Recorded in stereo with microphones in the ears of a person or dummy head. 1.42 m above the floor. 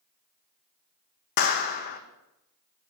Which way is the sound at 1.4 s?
45° left (ahead or behind).